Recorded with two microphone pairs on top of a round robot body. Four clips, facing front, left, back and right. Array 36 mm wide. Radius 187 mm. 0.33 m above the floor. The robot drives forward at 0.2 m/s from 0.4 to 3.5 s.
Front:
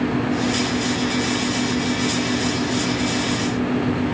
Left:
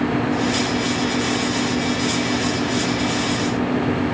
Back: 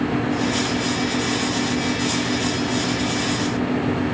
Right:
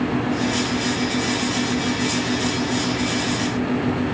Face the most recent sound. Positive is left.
No sound to turn to.